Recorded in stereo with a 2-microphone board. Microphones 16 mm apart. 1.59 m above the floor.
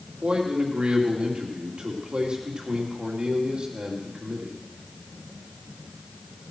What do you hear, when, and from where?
0.2 s a man speaking: 70° right (ahead or behind), 2.5 m